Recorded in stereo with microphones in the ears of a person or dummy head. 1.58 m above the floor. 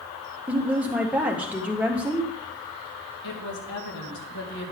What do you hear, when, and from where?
0.5 s a woman speaking: 5° right (ahead or behind), 1.5 m
3.2 s a woman speaking: 65° left (ahead or behind), 2 m